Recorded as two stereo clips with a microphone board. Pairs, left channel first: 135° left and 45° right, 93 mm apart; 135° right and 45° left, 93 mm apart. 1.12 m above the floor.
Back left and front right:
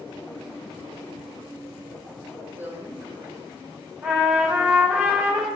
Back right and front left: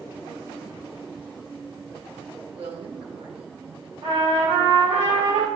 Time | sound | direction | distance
2.5 | a woman speaking | 25° left | 1.4 m
4.0 | a trumpet | 25° left | 1.7 m